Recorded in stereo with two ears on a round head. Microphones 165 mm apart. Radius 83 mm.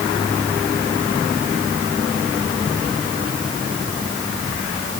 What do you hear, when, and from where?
Only background noise.